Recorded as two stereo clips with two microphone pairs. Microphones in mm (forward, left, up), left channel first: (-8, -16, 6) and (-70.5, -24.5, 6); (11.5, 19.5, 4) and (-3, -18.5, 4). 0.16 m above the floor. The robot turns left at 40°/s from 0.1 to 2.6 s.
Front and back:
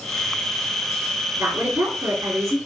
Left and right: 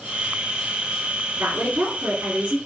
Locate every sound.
1.4 s a woman speaking: 130° right, 2.5 m; by 2.6 s 175° right, 2.5 m